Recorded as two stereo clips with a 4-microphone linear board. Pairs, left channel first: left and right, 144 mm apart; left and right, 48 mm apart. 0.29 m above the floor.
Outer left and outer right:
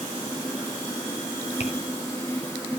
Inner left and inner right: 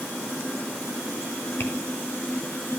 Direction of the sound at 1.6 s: 45° left (ahead or behind).